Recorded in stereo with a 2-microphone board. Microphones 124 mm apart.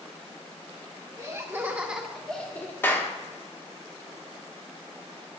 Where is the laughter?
30° right (ahead or behind), 1.2 m; by 2.7 s 20° left (ahead or behind), 1.1 m.